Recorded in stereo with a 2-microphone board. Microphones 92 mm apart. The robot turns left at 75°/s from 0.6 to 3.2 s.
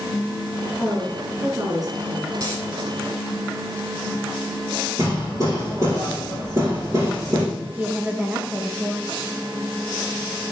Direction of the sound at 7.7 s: 15° right (ahead or behind).